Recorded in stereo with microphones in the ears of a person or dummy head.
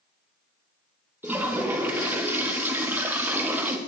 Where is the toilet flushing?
10° right (ahead or behind), 0.5 m.